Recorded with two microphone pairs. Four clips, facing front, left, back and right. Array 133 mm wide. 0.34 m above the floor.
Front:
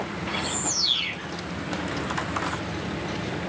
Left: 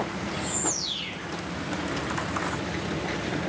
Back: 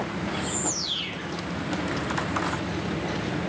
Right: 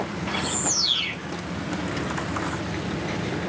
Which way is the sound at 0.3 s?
60° right.